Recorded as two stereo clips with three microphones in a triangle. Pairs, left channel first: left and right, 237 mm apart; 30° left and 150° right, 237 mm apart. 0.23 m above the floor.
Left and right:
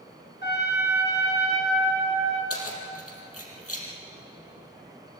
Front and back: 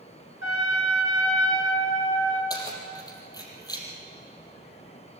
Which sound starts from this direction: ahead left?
A trumpet, at 0.4 s.